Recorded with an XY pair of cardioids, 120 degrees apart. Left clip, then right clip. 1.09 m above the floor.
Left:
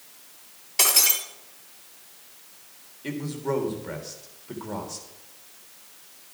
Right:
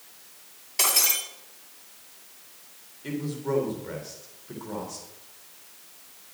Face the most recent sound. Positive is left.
turn(degrees=20)